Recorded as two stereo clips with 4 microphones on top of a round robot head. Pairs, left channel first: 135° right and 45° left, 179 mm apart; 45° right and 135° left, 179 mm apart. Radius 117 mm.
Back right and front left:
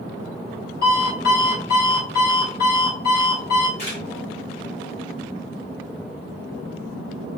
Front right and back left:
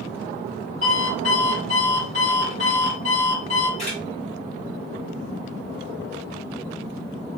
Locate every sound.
0.8 s an alarm clock: 100° right, 1.6 m
3.8 s a camera shutter: 100° right, 1.9 m